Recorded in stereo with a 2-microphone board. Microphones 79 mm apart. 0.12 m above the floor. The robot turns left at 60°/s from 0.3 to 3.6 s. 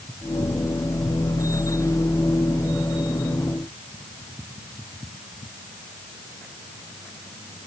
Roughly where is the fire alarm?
I don't hear a fire alarm.